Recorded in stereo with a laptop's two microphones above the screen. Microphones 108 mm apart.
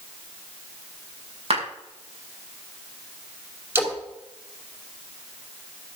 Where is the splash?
20° right (ahead or behind), 3 m.